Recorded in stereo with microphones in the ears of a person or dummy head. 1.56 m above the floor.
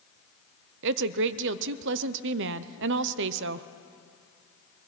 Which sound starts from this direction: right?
A woman speaking, at 0.8 s.